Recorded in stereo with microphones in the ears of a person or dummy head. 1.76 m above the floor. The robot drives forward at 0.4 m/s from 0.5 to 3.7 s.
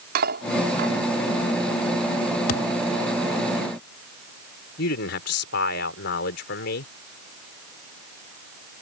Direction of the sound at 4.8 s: 75° left (ahead or behind).